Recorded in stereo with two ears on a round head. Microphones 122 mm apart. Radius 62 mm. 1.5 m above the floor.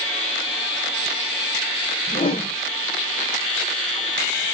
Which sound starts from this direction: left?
A whoosh, at 2.1 s.